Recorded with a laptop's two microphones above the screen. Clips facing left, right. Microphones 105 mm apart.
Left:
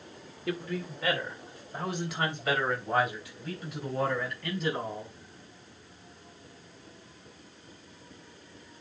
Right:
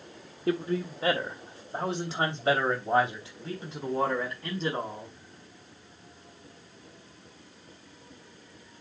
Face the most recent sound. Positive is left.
turn(degrees=-30)  # may be behind; listen again after turning